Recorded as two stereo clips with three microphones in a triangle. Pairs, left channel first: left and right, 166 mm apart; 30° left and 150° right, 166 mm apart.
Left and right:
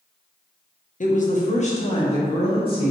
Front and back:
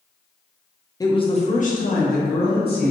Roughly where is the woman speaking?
Left.